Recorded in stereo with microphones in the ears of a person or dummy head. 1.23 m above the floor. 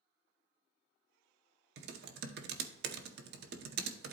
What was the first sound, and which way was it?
Typing on a keyboard, 50° right (ahead or behind).